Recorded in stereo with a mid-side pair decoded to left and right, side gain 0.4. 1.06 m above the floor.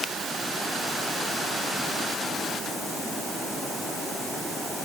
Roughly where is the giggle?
I don't hear a giggle.